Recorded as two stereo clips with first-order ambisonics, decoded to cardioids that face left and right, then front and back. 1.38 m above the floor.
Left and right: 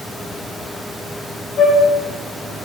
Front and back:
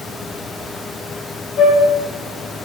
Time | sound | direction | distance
1.6 | a flute | 55° left | 1.7 m